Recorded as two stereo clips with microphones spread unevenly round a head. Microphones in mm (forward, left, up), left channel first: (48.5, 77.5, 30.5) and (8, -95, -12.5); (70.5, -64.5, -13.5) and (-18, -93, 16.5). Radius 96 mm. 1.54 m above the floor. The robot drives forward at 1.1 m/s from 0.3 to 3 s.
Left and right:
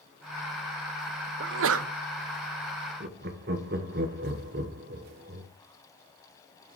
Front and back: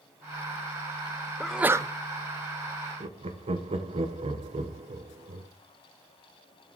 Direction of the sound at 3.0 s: 145° right.